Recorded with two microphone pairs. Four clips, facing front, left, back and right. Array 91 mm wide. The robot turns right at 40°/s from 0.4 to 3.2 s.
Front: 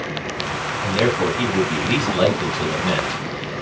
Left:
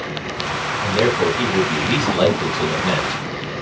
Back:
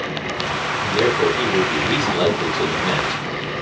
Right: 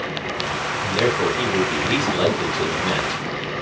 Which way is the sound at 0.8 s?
25° left.